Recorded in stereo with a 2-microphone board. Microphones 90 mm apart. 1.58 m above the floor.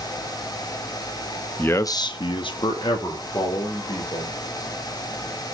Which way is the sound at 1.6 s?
15° left (ahead or behind).